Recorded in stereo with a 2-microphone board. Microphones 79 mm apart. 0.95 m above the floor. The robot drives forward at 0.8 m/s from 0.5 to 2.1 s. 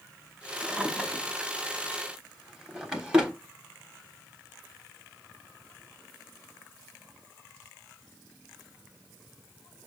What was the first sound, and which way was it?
A drawer, 5° right (ahead or behind).